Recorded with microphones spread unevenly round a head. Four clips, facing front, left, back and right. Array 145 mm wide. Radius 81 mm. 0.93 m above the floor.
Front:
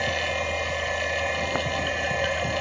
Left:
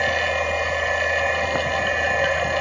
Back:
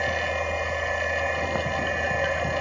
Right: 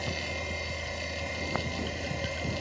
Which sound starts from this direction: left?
A machine running, at 0.0 s.